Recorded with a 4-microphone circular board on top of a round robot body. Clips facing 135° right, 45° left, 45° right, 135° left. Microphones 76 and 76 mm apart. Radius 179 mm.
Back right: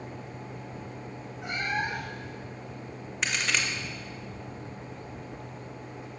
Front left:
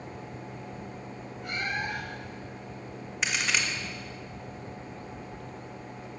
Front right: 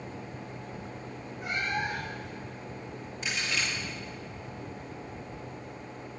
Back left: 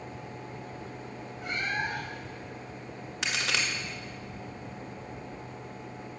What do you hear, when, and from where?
1.4 s a cat meowing: 120° right, 6.5 m
3.2 s a crack: 130° left, 2 m